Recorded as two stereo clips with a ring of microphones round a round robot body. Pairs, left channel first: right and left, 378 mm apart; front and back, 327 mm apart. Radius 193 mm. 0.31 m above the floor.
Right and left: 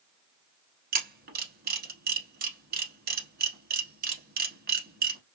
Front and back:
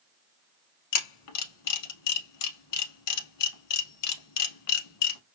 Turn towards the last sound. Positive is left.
turn(degrees=25)